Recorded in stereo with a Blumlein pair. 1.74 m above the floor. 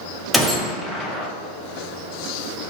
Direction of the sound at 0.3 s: Straight ahead.